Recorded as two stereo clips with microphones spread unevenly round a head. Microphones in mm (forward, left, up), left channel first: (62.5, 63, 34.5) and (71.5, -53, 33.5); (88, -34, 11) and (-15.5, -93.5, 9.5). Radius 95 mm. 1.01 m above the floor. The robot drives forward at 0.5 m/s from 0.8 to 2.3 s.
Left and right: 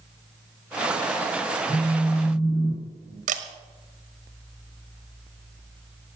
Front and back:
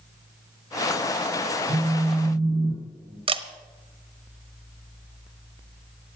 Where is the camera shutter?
110° right, 1.2 m.